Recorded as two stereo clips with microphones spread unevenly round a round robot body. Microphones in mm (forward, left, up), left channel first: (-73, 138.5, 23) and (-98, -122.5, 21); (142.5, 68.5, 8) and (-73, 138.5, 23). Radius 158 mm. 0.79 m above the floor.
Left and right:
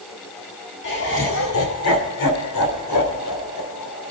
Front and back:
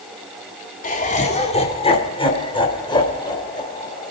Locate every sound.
0.8 s laughter: 30° left, 1.8 m; by 4.1 s 55° left, 4.5 m